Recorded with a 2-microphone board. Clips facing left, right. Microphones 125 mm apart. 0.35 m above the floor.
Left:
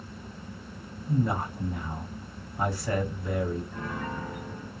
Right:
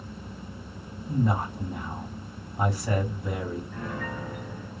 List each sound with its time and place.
1.1 s a man speaking: 20° right (ahead or behind), 2.5 m
3.7 s a piano: 25° left (ahead or behind), 2.5 m